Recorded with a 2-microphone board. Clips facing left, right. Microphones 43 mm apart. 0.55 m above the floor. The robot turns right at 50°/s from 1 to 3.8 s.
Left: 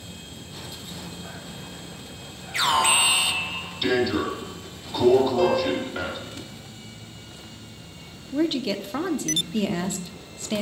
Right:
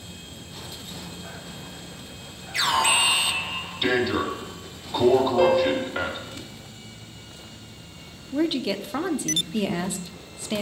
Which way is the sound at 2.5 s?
145° left.